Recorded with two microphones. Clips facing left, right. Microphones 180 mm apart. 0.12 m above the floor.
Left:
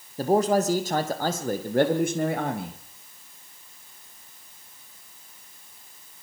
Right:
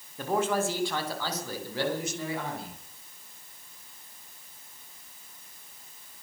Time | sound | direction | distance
0.2 | a man speaking | 35° left (ahead or behind) | 5 m